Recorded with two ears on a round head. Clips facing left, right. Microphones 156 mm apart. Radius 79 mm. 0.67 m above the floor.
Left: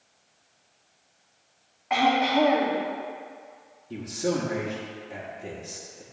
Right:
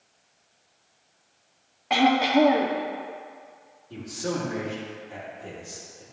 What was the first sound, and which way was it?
Throat clearing, 40° right (ahead or behind).